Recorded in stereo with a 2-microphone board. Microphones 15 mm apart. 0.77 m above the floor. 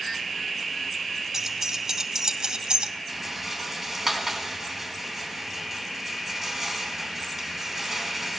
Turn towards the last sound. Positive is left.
turn(degrees=-10)  # may be behind; listen again after turning